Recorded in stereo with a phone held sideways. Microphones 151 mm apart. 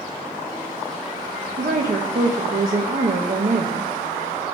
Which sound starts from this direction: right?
A woman speaking, at 1.6 s.